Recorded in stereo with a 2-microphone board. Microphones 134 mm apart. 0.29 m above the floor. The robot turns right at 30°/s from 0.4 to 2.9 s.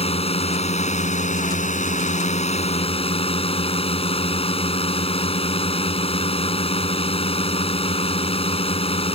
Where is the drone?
55° left; by 9.2 s 130° left.